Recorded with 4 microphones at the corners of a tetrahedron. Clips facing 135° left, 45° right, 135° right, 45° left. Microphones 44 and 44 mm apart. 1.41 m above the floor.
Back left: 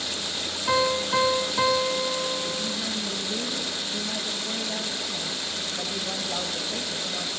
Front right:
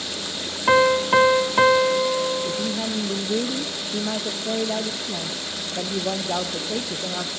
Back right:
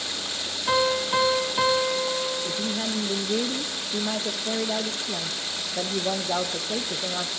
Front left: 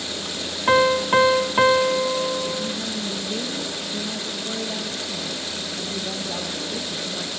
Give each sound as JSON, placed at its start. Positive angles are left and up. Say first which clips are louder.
{"t": 0.7, "sound": "a piano", "louder": "front right 7 dB, front left 6 dB", "azimuth_deg": 0, "distance_m": 1.0}
{"t": 2.5, "sound": "a woman speaking", "louder": "front right 4 dB, front left 1 dB", "azimuth_deg": -80, "distance_m": 1.1}